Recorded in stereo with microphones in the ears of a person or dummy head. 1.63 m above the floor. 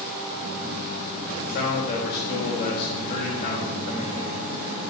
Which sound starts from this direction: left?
A man speaking, at 1.4 s.